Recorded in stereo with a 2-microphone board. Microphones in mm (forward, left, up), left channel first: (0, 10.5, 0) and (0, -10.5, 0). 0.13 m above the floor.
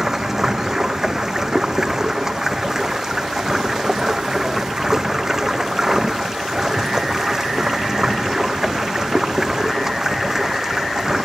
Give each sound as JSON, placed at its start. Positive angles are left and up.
{"t": 0.0, "sound": "running water", "side_deg": -25}